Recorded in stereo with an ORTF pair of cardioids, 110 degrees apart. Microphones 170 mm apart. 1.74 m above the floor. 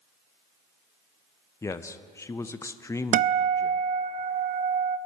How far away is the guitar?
About 0.5 m.